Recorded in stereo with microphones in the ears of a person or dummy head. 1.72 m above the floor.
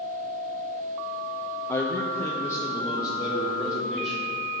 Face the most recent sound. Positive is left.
turn(degrees=20)  # may be behind; listen again after turning